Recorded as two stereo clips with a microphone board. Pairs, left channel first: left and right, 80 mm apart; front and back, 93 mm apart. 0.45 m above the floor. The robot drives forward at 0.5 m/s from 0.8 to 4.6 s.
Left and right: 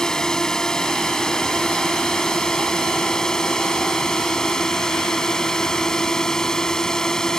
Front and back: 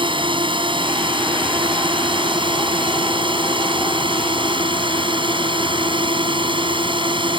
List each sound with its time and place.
0.0 s a drone: 170° left